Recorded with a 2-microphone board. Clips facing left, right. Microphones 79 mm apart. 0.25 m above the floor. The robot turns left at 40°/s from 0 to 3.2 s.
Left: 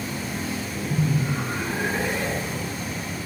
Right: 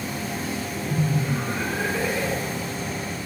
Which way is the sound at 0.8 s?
90° left.